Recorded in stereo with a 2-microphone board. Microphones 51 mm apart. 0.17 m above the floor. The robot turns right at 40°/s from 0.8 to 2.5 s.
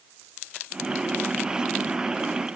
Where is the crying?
I don't hear crying.